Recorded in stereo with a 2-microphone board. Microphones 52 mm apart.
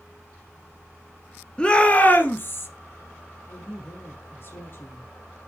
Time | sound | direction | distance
1.6 | a shout | 20° left (ahead or behind) | 1.3 m
3.5 | a woman speaking | 55° left (ahead or behind) | 3.5 m